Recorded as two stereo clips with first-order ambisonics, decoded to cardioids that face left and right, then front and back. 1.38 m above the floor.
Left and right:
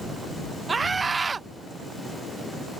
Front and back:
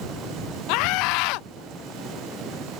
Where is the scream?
15° right.